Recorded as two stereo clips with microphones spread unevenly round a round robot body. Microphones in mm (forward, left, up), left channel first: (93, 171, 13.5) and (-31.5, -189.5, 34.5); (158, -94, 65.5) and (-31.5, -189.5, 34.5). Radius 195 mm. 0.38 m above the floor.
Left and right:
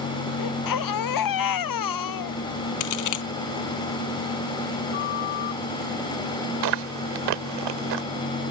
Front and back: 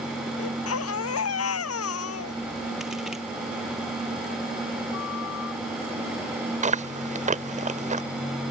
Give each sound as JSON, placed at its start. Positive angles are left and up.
{"t": 0.4, "sound": "a baby crying", "azimuth_deg": 35}
{"t": 2.8, "sound": "a crack", "azimuth_deg": 115}
{"t": 4.9, "sound": "a flute", "azimuth_deg": 55}
{"t": 6.6, "sound": "chewing", "azimuth_deg": -105}